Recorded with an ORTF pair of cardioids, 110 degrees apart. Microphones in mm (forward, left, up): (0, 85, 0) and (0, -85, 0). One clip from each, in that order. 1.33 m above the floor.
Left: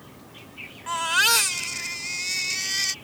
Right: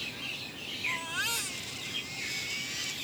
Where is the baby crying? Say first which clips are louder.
Left 12 dB; 70° left.